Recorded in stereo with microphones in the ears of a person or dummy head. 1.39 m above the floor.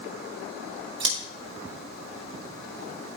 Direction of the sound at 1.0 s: 25° right (ahead or behind).